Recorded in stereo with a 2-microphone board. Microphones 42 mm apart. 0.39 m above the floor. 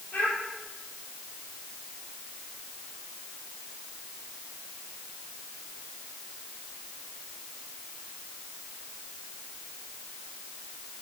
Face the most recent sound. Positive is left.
turn(degrees=50)  # may be behind; listen again after turning